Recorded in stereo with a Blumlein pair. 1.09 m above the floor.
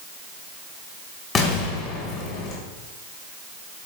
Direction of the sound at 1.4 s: 25° left.